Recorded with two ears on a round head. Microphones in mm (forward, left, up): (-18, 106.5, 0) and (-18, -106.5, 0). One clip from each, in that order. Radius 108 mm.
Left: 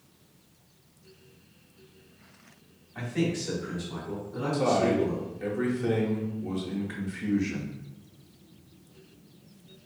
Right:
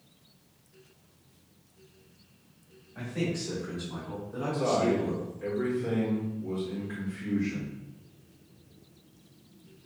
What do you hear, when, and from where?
3.0 s a man speaking: 30° left (ahead or behind), 1.4 m; by 5.3 s 45° right (ahead or behind), 1.8 m
4.5 s a man speaking: 35° left (ahead or behind), 0.9 m